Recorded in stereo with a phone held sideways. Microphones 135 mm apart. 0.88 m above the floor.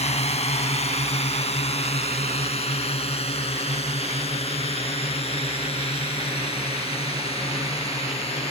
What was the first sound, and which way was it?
A drone, 50° left (ahead or behind).